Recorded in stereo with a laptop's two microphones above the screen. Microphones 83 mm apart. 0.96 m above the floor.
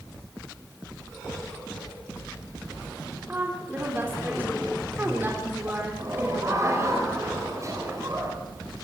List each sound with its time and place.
3.3 s a woman speaking: 25° right (ahead or behind), 3.5 m
6.0 s laughter: 35° right (ahead or behind), 4.5 m